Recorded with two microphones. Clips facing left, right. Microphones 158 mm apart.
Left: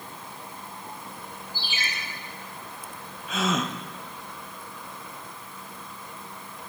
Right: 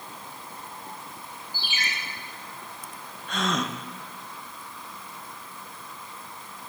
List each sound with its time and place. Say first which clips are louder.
1.5 s a ringtone: right 1 dB; 30° left (ahead or behind), 2.5 m
3.3 s a gasp: left 1 dB; 5° left (ahead or behind), 0.5 m